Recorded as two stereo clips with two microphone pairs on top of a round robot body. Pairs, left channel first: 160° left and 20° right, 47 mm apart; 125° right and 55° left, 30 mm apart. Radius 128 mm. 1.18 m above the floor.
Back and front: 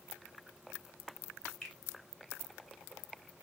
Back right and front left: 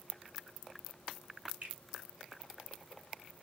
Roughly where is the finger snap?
Left.